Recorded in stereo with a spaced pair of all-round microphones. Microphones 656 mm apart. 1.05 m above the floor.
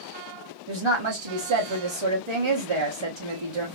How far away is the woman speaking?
About 1.1 m.